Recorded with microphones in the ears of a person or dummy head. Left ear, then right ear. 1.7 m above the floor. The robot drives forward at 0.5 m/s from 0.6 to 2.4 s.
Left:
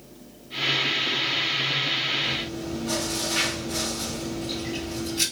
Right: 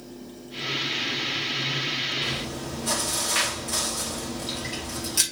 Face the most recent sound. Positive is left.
turn(degrees=-60)  # may be behind; listen again after turning